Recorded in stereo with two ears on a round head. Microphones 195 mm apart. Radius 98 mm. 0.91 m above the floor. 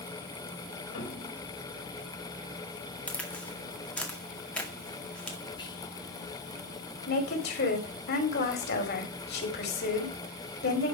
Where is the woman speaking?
45° left (ahead or behind), 2.5 m.